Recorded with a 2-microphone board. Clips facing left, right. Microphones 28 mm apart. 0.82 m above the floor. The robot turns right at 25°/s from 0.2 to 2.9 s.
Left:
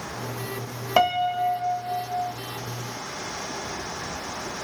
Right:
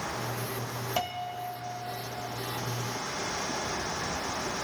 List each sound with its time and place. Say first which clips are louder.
1.0 s a piano: left 14 dB; 65° left, 0.8 m; by 2.3 s 100° left, 0.8 m